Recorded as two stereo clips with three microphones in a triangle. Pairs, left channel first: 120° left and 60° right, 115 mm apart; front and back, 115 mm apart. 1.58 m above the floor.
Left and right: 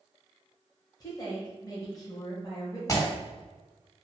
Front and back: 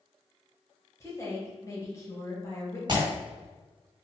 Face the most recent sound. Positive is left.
turn(degrees=165)